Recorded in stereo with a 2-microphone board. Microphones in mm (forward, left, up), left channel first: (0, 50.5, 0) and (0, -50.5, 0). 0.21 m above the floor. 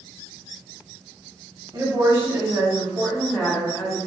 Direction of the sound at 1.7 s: 35° right (ahead or behind).